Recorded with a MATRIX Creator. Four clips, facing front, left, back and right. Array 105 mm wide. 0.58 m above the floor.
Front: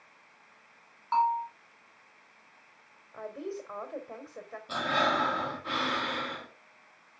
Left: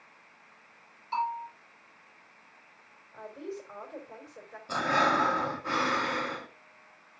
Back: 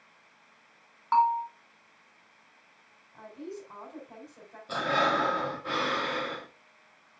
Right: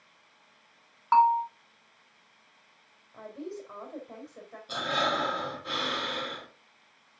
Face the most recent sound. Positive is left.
turn(degrees=100)